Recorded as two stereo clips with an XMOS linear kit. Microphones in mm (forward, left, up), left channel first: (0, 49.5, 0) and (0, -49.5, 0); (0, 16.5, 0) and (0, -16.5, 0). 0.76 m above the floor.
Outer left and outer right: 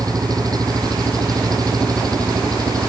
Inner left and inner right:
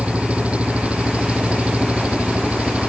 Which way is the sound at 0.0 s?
40° right (ahead or behind).